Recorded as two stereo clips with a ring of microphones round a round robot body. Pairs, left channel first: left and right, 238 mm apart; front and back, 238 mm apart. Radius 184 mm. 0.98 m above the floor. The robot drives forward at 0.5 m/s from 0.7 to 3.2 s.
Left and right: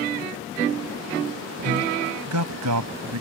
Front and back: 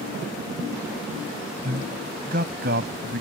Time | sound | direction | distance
1.6 | a man speaking | 115° right | ?